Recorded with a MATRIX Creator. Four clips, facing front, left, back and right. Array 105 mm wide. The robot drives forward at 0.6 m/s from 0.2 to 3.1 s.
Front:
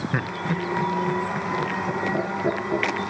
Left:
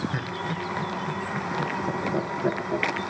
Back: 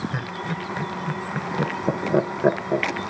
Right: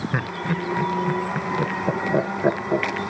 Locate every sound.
0.1 s laughter: 50° right, 0.9 m; by 3.0 s 160° right, 1.6 m